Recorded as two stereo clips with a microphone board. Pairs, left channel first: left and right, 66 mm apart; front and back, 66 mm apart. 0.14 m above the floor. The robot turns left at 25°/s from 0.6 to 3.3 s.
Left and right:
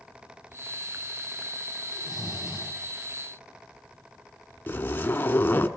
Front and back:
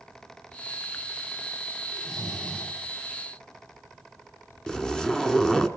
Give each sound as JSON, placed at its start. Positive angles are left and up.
{"t": 1.9, "sound": "snoring", "azimuth_deg": 75, "distance_m": 5.0}
{"t": 4.7, "sound": "a zipper", "azimuth_deg": 70, "distance_m": 0.8}